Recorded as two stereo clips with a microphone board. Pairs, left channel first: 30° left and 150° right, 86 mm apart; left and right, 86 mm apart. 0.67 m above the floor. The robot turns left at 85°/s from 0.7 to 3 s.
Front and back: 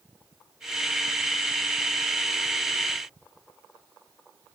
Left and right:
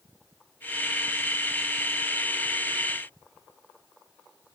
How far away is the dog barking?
No dog barking in this recording.